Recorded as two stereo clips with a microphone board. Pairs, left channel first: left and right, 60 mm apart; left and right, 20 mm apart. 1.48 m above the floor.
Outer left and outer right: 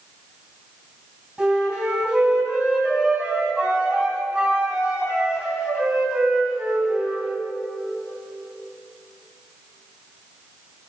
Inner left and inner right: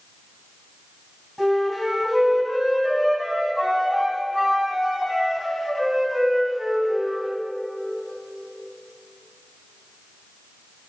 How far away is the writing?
I don't hear writing.